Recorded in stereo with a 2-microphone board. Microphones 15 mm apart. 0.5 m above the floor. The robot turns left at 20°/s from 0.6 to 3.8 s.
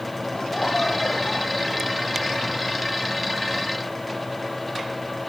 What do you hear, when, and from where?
0.3 s laughter: 80° left; by 2.6 s 40° left